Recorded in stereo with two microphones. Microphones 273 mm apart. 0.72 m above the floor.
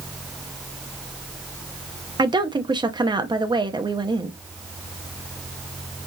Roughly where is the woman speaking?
Centre.